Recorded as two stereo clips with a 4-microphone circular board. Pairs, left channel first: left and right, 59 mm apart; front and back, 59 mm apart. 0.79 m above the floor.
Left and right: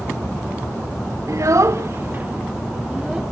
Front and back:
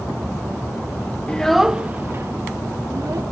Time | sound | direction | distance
1.3 | a child speaking | 70° right | 0.9 m